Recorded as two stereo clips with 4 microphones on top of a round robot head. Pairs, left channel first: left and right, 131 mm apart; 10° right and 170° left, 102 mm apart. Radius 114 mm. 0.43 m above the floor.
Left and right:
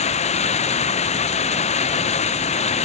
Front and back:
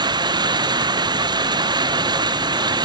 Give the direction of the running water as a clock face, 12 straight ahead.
8 o'clock.